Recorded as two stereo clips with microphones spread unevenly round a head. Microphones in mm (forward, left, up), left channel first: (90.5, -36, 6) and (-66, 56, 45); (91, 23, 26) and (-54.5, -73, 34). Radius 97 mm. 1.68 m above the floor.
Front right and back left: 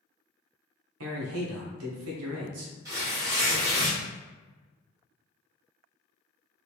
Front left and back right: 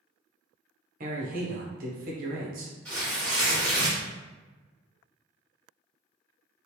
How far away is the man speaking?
About 1.0 m.